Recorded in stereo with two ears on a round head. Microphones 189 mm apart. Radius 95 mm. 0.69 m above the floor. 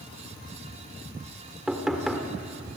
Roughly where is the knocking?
Centre.